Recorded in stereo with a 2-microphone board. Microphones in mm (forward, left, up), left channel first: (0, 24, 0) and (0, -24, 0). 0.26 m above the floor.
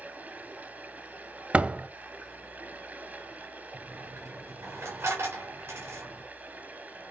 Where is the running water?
35° right (ahead or behind), 1.6 m.